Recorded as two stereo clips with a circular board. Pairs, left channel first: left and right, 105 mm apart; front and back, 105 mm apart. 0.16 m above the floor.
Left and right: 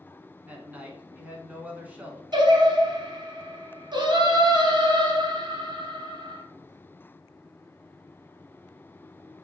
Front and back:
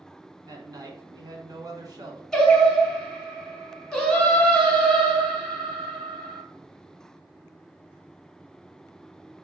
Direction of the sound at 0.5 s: 155° right.